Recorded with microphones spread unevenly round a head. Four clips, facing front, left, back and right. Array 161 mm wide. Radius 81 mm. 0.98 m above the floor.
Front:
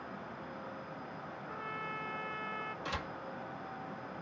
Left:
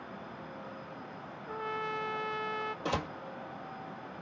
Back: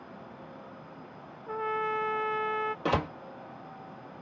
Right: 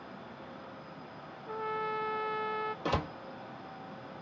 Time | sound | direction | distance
1.5 | a trumpet | 170° right | ?
2.9 | a door slam | 175° right | ?